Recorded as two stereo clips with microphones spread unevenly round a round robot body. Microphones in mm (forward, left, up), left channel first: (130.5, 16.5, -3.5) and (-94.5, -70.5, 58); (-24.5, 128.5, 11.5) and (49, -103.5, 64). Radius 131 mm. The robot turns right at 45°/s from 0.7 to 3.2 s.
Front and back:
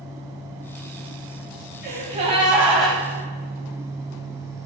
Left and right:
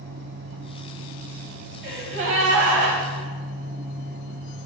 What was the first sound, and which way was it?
A gasp, 120° right.